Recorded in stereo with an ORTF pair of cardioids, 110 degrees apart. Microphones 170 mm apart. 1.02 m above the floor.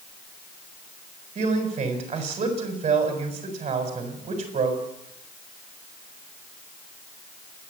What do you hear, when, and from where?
1.4 s a man speaking: 40° right, 7 m